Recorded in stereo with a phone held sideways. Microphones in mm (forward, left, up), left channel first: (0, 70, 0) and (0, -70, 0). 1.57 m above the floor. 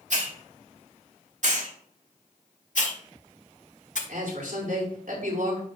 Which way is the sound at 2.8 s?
65° left (ahead or behind).